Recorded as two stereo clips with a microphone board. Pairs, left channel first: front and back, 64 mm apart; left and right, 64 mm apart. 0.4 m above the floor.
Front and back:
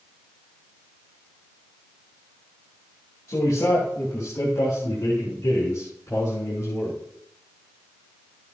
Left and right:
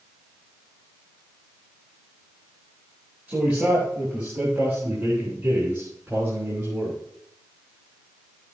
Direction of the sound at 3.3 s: 25° right.